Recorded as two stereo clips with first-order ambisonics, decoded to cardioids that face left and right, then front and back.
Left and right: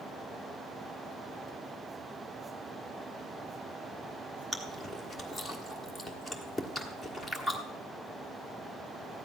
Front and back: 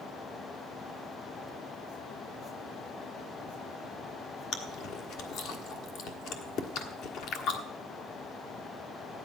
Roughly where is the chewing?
Ahead.